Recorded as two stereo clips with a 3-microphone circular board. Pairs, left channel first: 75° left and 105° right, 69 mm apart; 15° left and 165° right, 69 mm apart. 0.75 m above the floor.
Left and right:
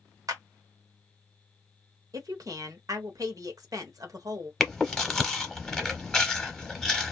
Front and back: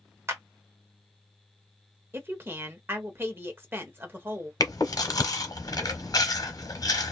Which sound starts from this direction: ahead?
Chewing, at 4.6 s.